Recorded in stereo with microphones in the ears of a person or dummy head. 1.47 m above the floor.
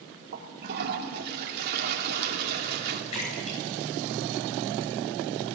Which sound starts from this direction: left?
A splash, at 3.1 s.